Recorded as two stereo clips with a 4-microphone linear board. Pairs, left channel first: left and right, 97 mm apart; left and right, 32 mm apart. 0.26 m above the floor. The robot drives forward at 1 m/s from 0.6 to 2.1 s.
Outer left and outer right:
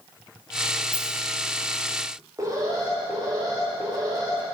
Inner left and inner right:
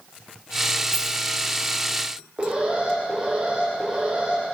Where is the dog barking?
No dog barking in this recording.